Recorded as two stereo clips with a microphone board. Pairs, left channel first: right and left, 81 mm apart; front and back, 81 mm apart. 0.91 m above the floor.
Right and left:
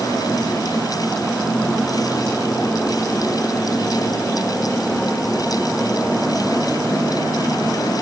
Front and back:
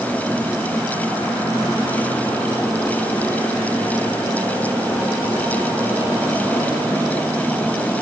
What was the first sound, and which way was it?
Only background noise.